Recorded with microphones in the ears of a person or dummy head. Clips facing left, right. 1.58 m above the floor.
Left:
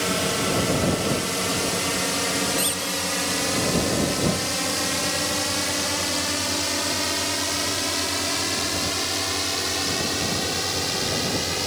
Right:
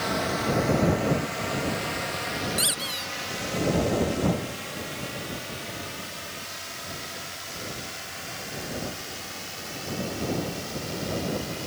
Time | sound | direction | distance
0.0 | a drone | 40° left (ahead or behind) | ?
2.6 | a squeak | 10° right (ahead or behind) | ?